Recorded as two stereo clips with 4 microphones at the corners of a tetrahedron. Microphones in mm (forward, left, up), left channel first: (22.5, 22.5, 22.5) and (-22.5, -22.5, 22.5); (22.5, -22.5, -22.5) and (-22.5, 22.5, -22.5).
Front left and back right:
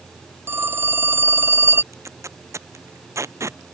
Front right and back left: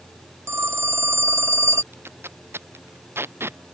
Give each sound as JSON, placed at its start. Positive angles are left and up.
{"t": 0.5, "sound": "a phone ringing", "azimuth_deg": 175}
{"t": 1.9, "sound": "tape being pulled", "azimuth_deg": -175}